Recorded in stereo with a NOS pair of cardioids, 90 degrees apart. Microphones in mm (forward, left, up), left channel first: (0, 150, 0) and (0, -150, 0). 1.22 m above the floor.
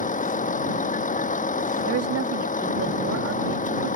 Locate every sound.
0.0 s a vehicle: 25° left
1.9 s a woman speaking: 55° right